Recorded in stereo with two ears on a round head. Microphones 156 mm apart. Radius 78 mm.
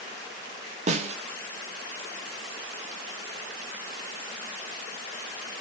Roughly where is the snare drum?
Right.